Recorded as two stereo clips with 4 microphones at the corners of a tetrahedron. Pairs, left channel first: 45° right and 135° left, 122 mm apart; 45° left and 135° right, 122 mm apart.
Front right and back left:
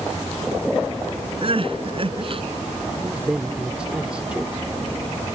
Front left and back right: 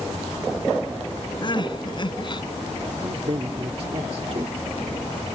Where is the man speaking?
145° right.